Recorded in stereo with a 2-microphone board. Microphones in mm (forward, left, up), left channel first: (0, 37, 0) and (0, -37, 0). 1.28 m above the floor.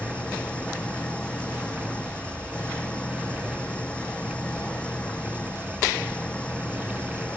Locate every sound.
0.0 s an engine running: 15° left (ahead or behind)